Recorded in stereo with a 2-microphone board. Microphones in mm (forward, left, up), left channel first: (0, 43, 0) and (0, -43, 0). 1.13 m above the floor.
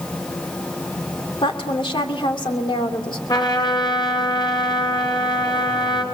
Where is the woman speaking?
75° left (ahead or behind), 2.5 m.